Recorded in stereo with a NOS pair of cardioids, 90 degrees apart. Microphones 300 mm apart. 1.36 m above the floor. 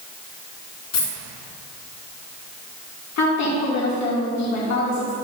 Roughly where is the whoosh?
I don't hear a whoosh.